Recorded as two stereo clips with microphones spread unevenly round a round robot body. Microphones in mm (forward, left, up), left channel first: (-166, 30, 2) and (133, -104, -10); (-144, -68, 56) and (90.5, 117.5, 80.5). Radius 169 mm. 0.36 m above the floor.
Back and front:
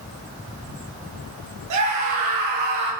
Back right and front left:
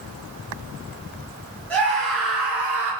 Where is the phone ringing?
No phone ringing in this recording.